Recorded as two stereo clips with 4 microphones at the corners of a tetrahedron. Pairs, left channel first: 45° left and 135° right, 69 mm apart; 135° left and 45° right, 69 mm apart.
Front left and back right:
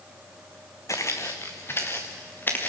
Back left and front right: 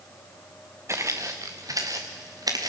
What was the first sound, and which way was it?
Footsteps, 5° left.